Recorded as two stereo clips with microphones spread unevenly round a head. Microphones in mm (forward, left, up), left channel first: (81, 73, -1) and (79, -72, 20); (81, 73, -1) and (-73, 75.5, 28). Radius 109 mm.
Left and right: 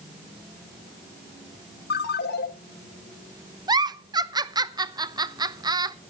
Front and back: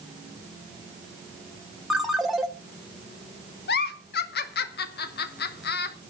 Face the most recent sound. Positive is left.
turn(degrees=-25)